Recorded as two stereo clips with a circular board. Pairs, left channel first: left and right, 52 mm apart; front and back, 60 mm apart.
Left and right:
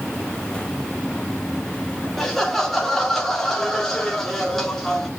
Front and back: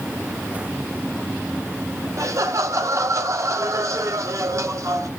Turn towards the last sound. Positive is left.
turn(degrees=175)